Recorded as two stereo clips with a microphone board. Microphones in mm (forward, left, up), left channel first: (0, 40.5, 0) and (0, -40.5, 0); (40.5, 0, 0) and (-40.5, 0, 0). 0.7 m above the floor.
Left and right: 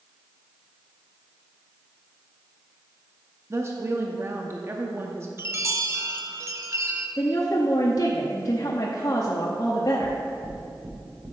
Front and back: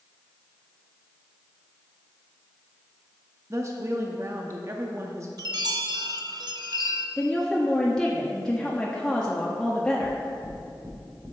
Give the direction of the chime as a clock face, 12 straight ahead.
5 o'clock.